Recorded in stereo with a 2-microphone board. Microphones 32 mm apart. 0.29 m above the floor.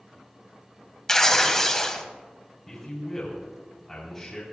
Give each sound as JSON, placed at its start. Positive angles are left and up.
{"t": 1.1, "sound": "tearing paper", "side_deg": 15, "distance_m": 1.1}
{"t": 2.7, "sound": "a man speaking", "side_deg": 15, "distance_m": 3.0}